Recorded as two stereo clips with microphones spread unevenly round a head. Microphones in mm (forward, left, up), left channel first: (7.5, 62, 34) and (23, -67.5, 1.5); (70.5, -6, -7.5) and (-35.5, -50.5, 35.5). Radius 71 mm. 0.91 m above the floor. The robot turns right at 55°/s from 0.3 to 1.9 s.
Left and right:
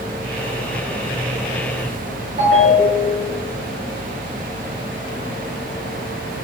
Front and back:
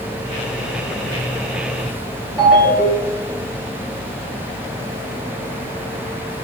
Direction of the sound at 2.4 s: 75° right.